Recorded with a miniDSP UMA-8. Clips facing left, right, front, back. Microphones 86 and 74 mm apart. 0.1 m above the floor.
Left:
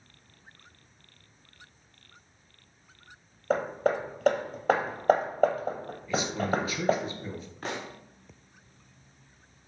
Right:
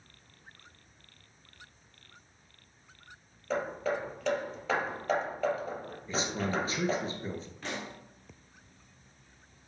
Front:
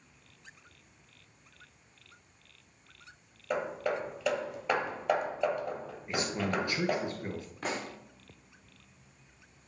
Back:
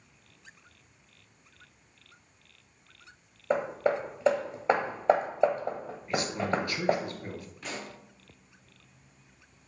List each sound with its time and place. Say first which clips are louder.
3.5 s hammering: left 5 dB, back 5 dB; 125° left, 1.0 m
6.1 s a man speaking: left 4 dB, back 3 dB; 55° right, 1.6 m
7.6 s a pop: left 4 dB, front 5 dB; 40° left, 1.5 m